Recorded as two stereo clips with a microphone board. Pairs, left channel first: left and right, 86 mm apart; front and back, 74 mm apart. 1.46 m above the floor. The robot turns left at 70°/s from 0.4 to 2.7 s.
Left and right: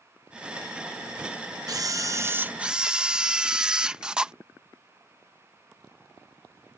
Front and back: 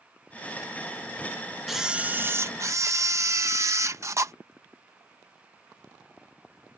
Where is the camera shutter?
95° right; by 4.3 s 165° right.